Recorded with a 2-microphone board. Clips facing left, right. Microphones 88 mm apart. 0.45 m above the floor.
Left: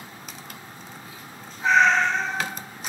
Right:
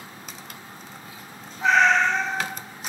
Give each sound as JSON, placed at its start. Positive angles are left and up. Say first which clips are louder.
{"t": 1.6, "sound": "a cat meowing", "louder": "even", "side_deg": -75, "distance_m": 1.0}